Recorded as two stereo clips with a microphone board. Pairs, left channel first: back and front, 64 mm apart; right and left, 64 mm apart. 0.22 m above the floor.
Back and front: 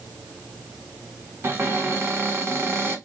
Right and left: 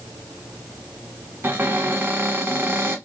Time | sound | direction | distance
1.4 | a cupboard door | 40° left | 1.0 m